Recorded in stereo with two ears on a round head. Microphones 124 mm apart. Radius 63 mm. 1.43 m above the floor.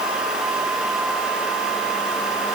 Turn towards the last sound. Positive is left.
No sound to turn to.